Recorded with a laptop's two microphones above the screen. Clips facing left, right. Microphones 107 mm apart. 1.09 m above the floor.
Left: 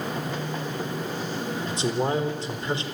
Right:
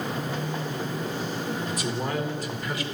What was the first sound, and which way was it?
A man speaking, 30° left (ahead or behind).